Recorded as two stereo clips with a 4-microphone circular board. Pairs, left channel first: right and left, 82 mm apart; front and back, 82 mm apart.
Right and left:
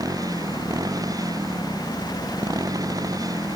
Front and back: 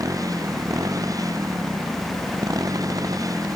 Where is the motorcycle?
135° left.